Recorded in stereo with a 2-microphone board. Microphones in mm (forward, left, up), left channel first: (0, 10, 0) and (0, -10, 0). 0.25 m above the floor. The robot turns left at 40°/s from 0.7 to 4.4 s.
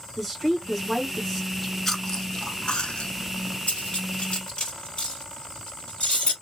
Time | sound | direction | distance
0.2 | a woman speaking | 5° right (ahead or behind) | 2.5 m
1.5 | chewing | centre (ahead or behind) | 0.9 m
3.7 | cutlery clinking | 75° left (ahead or behind) | 2.5 m